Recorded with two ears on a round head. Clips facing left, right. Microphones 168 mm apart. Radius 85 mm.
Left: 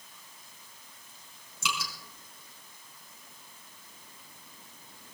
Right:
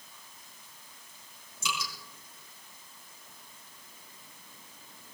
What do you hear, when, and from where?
1.6 s dripping: 55° left (ahead or behind), 4 m